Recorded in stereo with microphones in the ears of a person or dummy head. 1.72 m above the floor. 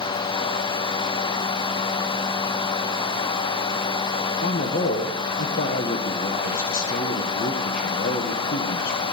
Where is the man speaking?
55° left (ahead or behind), 1.5 m.